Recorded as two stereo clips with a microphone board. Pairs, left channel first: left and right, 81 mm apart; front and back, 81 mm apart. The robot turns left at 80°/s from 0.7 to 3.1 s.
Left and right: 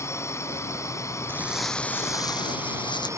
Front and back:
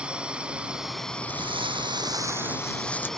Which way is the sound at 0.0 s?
110° left.